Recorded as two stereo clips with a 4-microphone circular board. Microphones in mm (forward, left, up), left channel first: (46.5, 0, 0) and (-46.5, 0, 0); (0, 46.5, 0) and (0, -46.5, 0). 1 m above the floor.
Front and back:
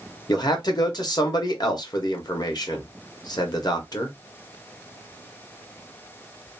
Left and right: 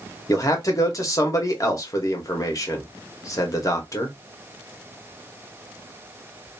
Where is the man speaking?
40° left, 1.0 m.